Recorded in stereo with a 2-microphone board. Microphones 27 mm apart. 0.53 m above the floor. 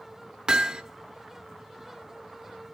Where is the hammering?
20° right (ahead or behind), 0.5 m.